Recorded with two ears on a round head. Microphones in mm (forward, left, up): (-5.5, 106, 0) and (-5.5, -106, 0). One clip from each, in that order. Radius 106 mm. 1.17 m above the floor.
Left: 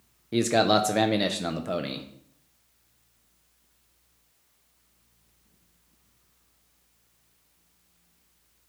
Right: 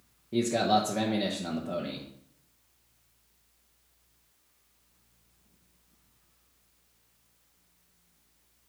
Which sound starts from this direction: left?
A man speaking, at 0.3 s.